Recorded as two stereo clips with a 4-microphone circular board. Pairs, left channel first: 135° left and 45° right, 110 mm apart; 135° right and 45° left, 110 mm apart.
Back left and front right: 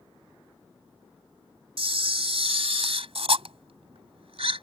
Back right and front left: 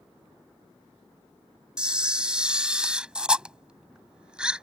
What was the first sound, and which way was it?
A camera shutter, 35° right.